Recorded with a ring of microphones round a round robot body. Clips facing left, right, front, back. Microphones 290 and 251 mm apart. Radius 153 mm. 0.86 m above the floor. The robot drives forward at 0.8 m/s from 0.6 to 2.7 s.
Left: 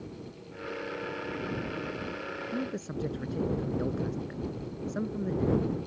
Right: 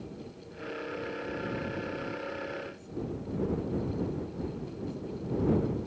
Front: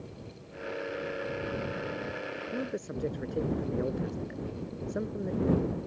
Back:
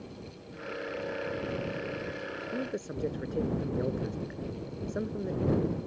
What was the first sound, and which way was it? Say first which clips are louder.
A man speaking: left 5 dB, even; 95° left.